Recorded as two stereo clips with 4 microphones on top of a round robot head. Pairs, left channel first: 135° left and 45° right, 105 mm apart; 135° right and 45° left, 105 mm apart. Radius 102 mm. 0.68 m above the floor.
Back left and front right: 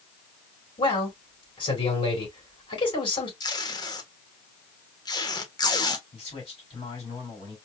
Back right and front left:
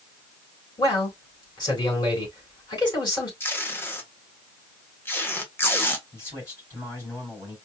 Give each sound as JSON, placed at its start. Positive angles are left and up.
{"t": 0.8, "sound": "a man speaking", "azimuth_deg": 175, "distance_m": 3.0}
{"t": 3.4, "sound": "tape being pulled", "azimuth_deg": 165, "distance_m": 1.4}
{"t": 6.1, "sound": "a man speaking", "azimuth_deg": 160, "distance_m": 3.0}